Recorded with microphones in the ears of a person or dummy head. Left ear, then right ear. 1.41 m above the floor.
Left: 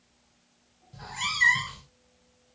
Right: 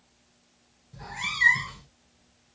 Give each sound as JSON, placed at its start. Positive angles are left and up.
{"t": 0.9, "sound": "a cat meowing", "side_deg": 20, "distance_m": 1.8}